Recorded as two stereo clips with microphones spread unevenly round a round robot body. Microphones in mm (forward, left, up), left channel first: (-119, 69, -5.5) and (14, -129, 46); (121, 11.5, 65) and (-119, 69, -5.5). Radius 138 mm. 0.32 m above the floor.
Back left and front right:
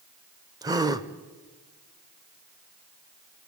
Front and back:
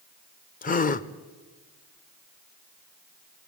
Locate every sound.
0.6 s a gasp: 25° left, 1.1 m